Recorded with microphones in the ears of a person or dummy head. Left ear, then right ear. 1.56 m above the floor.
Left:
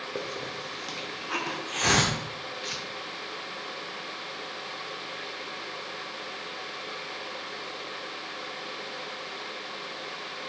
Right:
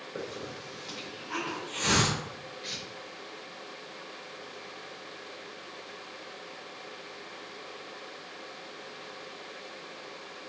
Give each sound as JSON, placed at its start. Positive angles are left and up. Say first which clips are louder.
{"t": 0.1, "sound": "a hiss", "louder": "left 2 dB", "side_deg": 50, "distance_m": 0.6}
{"t": 2.6, "sound": "tearing paper", "louder": "left 2 dB", "side_deg": 45, "distance_m": 0.6}